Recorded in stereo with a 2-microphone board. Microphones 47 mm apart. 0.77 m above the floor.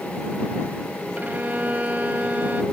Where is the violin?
35° right (ahead or behind).